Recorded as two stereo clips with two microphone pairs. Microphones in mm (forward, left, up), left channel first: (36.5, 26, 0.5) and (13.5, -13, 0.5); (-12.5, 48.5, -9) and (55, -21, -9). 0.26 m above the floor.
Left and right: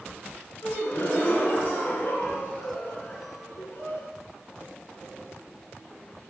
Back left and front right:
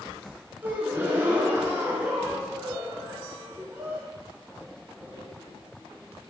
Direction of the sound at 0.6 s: 25° left.